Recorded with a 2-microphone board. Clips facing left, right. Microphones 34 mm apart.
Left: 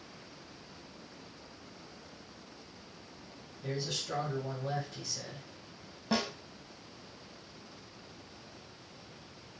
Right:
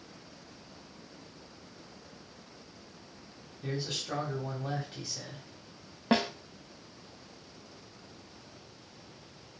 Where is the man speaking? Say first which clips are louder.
Right 1 dB; 30° right (ahead or behind), 1.2 m.